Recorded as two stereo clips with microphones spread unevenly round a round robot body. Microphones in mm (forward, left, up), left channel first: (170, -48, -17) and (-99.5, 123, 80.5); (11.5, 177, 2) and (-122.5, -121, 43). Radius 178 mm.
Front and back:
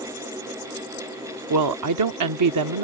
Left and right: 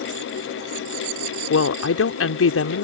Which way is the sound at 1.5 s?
110° left.